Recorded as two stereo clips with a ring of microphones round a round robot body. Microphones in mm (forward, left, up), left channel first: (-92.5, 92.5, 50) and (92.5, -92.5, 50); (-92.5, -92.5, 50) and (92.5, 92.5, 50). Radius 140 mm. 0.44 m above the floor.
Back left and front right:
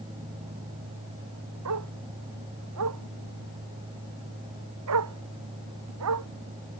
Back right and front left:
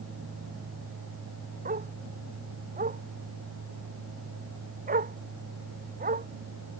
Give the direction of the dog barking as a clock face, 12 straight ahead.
1 o'clock.